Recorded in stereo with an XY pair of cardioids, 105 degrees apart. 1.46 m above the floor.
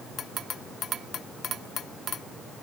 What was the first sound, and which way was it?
Only background noise.